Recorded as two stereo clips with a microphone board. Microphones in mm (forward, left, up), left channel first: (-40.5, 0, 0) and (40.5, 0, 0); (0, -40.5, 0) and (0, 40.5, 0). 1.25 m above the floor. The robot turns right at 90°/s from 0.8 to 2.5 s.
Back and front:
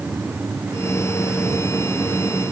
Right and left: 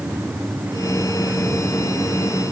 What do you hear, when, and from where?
Only background noise.